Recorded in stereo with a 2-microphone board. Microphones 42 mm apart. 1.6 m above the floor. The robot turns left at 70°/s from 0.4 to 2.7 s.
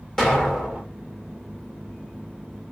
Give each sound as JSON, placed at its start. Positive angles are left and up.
{"t": 0.2, "sound": "an explosion", "azimuth_deg": 15, "distance_m": 3.0}